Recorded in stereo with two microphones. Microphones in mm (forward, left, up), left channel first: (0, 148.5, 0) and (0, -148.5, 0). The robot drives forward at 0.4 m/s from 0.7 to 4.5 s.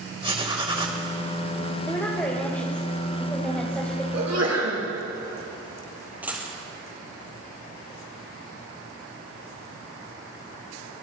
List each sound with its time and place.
0.2 s writing: 15° right (ahead or behind), 2 m
1.9 s a woman speaking: 5° left (ahead or behind), 1.6 m
4.1 s a sneeze: 65° right (ahead or behind), 5 m; by 4.8 s 60° right (ahead or behind), 5 m
6.2 s a dropped coin: 5° right (ahead or behind), 2 m